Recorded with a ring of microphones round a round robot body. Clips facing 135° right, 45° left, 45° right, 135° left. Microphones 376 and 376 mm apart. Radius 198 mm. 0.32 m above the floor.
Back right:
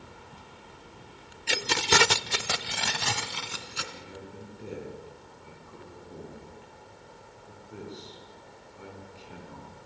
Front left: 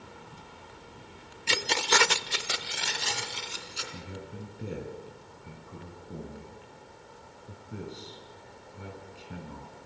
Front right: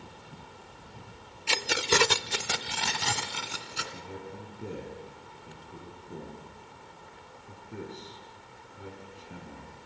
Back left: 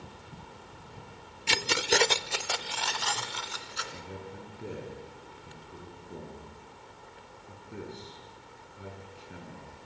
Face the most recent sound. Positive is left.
turn(degrees=45)